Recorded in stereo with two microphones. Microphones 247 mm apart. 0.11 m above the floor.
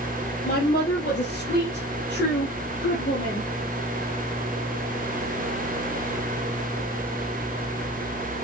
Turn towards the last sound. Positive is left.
turn(degrees=45)  # may be behind; listen again after turning